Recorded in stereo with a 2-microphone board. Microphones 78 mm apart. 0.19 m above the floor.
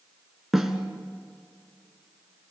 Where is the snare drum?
Centre (ahead or behind), 1.8 m.